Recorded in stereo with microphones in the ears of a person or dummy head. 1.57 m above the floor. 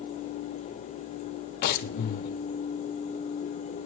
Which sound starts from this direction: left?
Breathing, at 1.6 s.